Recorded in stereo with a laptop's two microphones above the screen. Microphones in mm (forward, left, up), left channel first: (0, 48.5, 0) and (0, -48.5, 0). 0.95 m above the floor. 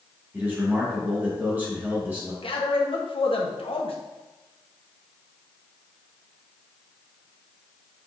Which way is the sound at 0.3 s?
20° right (ahead or behind).